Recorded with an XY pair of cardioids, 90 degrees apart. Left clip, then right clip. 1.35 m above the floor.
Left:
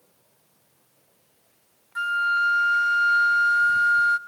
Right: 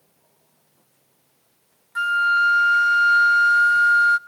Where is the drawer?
No drawer in this recording.